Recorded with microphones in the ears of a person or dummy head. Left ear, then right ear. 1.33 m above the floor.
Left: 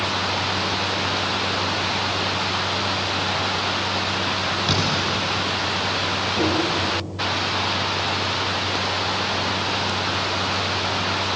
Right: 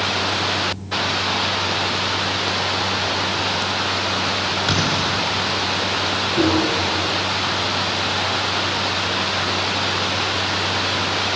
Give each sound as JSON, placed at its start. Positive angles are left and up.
{"t": 4.7, "sound": "a thud", "side_deg": -20, "distance_m": 6.5}
{"t": 6.4, "sound": "tapping", "side_deg": -65, "distance_m": 7.0}